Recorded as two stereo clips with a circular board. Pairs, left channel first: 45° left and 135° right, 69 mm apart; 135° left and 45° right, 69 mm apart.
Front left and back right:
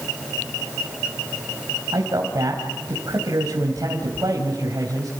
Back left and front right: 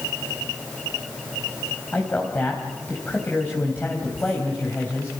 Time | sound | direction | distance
1.9 | a man speaking | 160° right | 3.5 m